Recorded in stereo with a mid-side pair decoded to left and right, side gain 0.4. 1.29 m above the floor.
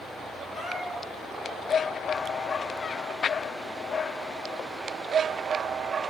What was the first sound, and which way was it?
A cat meowing, 50° left.